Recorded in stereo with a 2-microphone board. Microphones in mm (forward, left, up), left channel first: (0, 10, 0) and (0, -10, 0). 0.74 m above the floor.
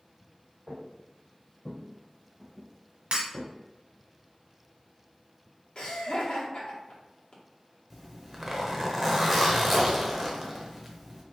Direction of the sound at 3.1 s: 60° right (ahead or behind).